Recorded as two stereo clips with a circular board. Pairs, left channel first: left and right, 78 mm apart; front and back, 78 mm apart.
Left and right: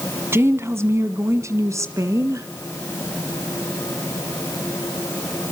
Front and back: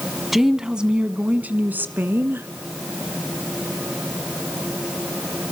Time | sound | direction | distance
0.3 | a woman speaking | 95° right | 1.4 m